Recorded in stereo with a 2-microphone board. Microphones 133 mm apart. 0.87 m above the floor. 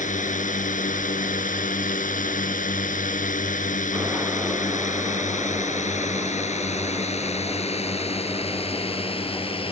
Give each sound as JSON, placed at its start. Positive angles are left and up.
{"t": 0.0, "sound": "a drone", "side_deg": 75}